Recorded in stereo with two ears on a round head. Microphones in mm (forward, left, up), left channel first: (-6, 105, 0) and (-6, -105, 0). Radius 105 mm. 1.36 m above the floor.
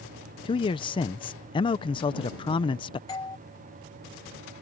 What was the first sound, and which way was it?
A man speaking, 20° left (ahead or behind).